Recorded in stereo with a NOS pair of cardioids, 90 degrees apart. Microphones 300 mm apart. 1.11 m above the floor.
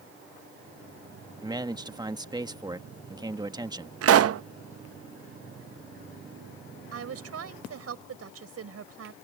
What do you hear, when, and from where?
1.4 s a man speaking: 15° right
4.0 s a pop: 55° right
6.9 s a woman speaking: 55° right